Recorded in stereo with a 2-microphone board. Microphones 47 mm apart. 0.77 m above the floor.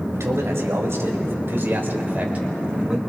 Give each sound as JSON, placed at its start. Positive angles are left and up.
{"t": 0.1, "sound": "a man speaking", "side_deg": -75, "distance_m": 4.5}